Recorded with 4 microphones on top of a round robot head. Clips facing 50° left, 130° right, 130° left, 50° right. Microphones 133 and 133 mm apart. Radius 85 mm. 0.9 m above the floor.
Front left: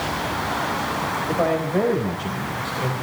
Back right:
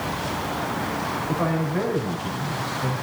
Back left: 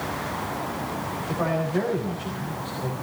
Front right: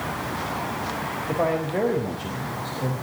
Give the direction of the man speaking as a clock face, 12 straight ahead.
12 o'clock.